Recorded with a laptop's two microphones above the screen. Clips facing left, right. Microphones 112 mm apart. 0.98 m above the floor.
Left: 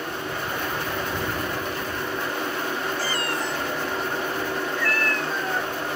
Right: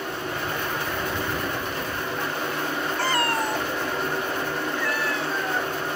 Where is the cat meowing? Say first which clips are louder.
Right 3 dB; 65° right (ahead or behind); by 5.7 s 10° left (ahead or behind).